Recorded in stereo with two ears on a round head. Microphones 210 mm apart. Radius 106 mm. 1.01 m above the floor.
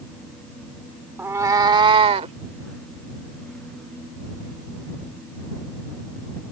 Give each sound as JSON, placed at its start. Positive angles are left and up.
{"t": 1.2, "sound": "a cat meowing", "side_deg": -10}